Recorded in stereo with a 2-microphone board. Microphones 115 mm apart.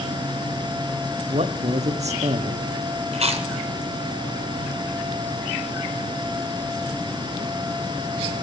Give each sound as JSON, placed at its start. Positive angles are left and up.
{"t": 1.3, "sound": "a man speaking", "side_deg": -75, "distance_m": 0.6}
{"t": 3.1, "sound": "chewing", "side_deg": -65, "distance_m": 0.9}